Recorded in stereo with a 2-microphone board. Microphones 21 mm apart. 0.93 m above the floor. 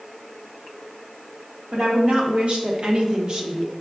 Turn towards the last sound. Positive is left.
turn(degrees=-15)  # may be behind; listen again after turning